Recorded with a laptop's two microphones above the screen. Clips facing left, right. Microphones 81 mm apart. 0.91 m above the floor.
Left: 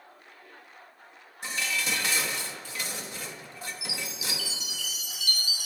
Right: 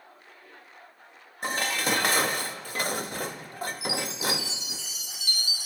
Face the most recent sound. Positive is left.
turn(degrees=-25)  # may be behind; listen again after turning